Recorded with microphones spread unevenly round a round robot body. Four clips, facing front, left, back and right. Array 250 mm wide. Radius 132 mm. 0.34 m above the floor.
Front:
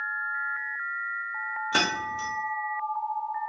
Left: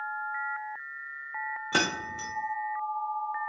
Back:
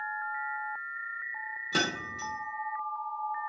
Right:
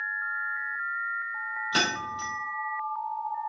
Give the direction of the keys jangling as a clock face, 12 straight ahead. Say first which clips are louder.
Even, front 3 dB; 10 o'clock.